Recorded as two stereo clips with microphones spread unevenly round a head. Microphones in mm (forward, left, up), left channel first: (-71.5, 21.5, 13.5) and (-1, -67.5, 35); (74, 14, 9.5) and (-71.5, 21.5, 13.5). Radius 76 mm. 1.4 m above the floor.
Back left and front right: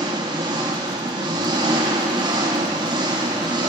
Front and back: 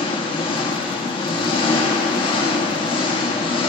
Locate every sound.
0.0 s an engine running: 50° right, 1.0 m